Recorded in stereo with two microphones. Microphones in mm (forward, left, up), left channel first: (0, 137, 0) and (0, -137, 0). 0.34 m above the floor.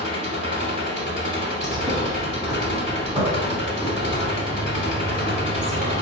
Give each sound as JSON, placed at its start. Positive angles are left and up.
{"t": 0.0, "sound": "an engine running", "side_deg": 40, "distance_m": 0.9}
{"t": 1.6, "sound": "a bird", "side_deg": -15, "distance_m": 2.0}